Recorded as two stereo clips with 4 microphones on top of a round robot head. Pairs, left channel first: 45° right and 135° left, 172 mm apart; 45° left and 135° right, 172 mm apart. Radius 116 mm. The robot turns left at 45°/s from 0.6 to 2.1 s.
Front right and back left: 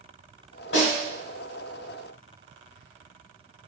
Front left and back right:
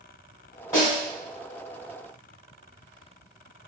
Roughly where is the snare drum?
Ahead right.